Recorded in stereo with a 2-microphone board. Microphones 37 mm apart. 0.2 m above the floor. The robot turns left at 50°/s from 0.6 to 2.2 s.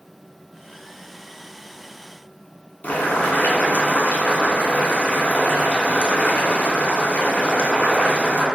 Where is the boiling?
45° left (ahead or behind), 0.5 m.